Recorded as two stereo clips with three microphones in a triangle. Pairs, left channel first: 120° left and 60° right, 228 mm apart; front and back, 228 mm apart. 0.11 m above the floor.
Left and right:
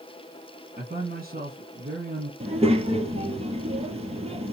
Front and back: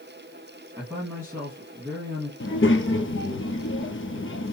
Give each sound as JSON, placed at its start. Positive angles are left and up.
{"t": 0.8, "sound": "a man speaking", "azimuth_deg": -110, "distance_m": 2.5}
{"t": 2.4, "sound": "a child speaking", "azimuth_deg": 0, "distance_m": 1.5}